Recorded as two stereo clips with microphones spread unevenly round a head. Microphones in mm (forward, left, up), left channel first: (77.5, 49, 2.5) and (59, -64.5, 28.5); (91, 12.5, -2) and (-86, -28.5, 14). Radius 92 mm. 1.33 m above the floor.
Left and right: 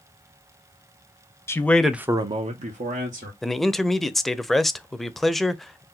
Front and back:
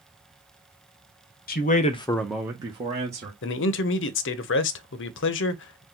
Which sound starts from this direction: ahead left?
A man speaking, at 1.5 s.